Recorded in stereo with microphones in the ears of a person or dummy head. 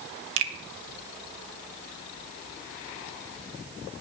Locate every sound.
0.4 s a finger snap: 70° right (ahead or behind), 1.9 m